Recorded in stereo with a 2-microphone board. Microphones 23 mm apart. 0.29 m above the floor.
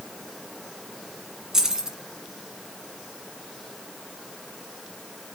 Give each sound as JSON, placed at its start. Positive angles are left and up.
{"t": 1.5, "sound": "keys jangling", "side_deg": -30, "distance_m": 1.8}